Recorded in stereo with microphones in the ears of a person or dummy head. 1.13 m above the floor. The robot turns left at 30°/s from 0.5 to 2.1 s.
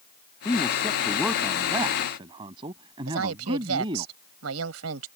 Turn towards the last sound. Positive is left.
turn(degrees=-85)